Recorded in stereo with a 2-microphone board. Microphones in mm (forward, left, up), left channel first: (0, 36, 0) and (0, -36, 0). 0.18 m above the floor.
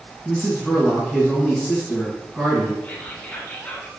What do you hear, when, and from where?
0.2 s a man speaking: 5° right (ahead or behind), 1.7 m
2.8 s whispering: 20° left (ahead or behind), 1.8 m